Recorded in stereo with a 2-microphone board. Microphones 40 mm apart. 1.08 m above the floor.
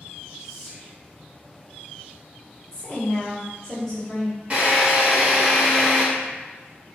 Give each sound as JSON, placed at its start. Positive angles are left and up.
{"t": 0.4, "sound": "whispering", "side_deg": -5, "distance_m": 0.9}
{"t": 2.7, "sound": "a woman speaking", "side_deg": 15, "distance_m": 1.7}
{"t": 4.5, "sound": "a drill", "side_deg": -30, "distance_m": 1.3}